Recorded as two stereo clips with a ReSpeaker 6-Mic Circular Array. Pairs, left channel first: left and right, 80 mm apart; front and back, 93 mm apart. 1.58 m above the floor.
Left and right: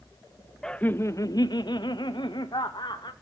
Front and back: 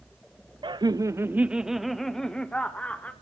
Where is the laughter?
170° left, 0.6 m; by 3.1 s 75° left, 1.9 m.